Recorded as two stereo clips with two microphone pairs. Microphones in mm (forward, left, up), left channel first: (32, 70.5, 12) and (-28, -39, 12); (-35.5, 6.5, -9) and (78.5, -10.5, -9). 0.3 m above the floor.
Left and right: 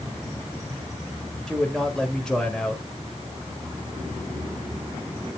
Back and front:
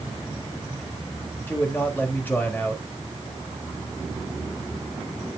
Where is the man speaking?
135° left, 1.4 m.